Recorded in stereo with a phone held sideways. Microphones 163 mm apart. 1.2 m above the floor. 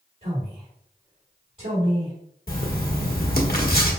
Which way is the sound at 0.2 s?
55° right (ahead or behind).